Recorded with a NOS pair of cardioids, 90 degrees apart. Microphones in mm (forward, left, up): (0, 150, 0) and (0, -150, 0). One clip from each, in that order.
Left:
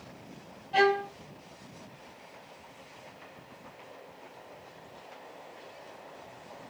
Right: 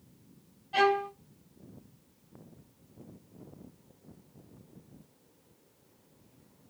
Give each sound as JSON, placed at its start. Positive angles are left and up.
{"t": 0.7, "sound": "a violin", "azimuth_deg": 10, "distance_m": 1.8}